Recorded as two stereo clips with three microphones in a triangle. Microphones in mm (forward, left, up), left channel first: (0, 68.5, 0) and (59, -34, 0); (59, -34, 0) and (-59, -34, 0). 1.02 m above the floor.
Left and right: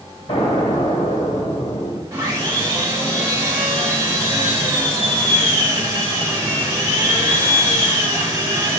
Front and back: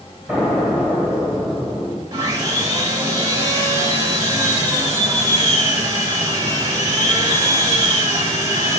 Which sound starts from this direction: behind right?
Sawing, at 2.1 s.